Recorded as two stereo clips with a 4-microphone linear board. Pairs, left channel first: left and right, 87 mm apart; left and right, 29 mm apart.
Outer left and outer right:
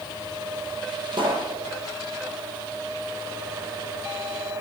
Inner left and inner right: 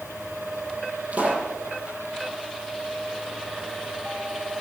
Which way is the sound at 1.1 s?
60° right (ahead or behind).